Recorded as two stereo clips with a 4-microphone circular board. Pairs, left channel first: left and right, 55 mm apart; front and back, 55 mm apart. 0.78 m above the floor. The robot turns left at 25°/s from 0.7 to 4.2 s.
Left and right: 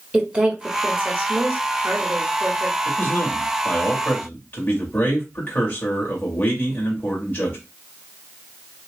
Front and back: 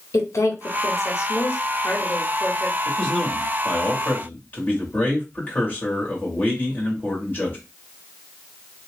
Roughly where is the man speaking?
Left.